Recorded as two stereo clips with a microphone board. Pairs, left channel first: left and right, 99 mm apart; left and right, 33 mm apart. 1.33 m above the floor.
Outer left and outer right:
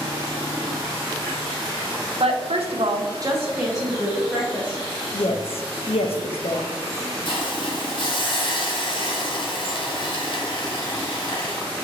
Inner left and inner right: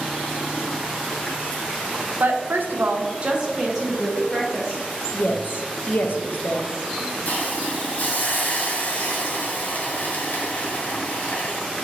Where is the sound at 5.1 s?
75° left (ahead or behind), 0.5 m.